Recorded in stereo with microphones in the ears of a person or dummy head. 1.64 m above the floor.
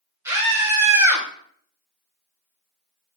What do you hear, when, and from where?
0.2 s a scream: 10° right (ahead or behind), 2.5 m